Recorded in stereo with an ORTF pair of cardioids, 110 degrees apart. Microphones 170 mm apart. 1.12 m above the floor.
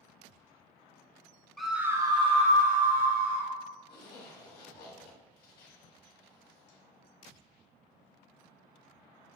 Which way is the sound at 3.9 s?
70° left.